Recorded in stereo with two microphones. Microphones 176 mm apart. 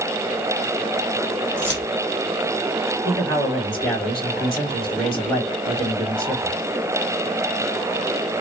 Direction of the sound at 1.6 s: 10° left (ahead or behind).